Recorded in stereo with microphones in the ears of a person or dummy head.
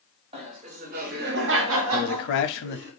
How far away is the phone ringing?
No phone ringing in this recording.